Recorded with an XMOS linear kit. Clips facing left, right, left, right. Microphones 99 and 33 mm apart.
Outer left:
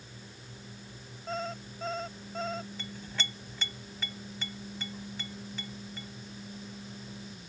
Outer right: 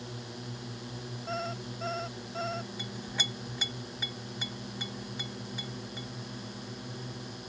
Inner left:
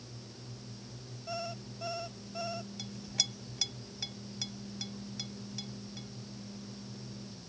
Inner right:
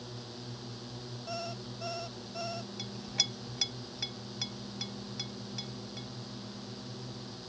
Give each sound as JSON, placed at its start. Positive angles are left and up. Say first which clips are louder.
{"t": 0.0, "sound": "a drone", "louder": "outer right 9 dB, inner right 5 dB", "side_deg": -70}
{"t": 1.3, "sound": "an alarm clock", "louder": "even, inner left 1 dB", "side_deg": 0}
{"t": 2.8, "sound": "a clink", "louder": "outer right 2 dB, inner right 4 dB", "side_deg": -15}